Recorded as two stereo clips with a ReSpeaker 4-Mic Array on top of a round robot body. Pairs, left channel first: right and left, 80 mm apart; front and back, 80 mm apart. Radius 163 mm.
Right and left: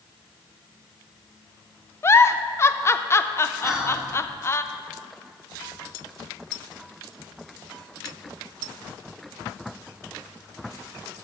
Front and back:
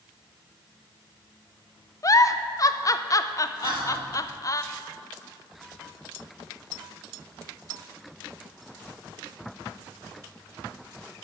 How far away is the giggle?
About 0.6 m.